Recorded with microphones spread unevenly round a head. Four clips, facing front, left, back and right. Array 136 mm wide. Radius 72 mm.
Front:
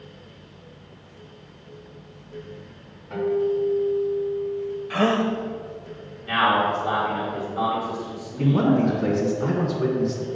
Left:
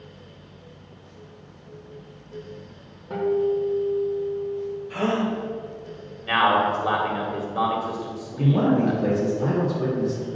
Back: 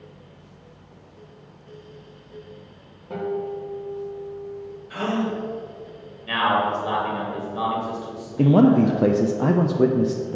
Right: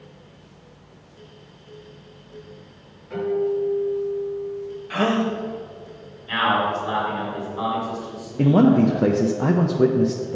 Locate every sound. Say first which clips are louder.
3.1 s a guitar: even, front 5 dB; 135° left, 2 m
4.9 s a gasp: right 3 dB, front 3 dB; 40° right, 0.9 m
6.3 s a man speaking: left 2 dB, front 1 dB; 95° left, 1.8 m
8.4 s a man speaking: right 5 dB, back 4 dB; 140° right, 0.5 m